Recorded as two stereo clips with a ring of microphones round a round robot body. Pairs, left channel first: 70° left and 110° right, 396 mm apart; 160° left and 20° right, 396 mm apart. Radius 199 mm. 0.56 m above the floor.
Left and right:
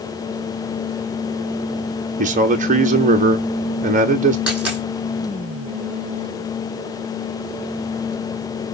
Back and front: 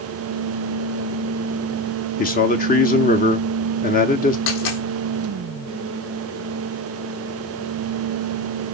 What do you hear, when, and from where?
2.2 s a man speaking: 160° right, 0.7 m
4.5 s a dropped coin: 160° left, 4 m